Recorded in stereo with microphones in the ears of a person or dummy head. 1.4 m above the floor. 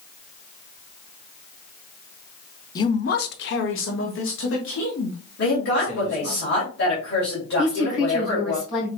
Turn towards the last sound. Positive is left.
turn(degrees=40)  # may be behind; listen again after turning